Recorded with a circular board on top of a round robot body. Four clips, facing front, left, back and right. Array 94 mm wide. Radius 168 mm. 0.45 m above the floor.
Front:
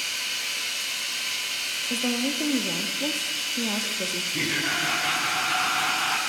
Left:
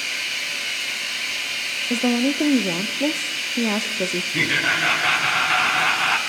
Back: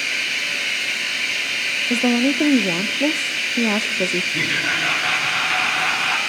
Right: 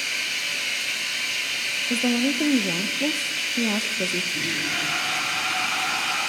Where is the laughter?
110° left, 3 m.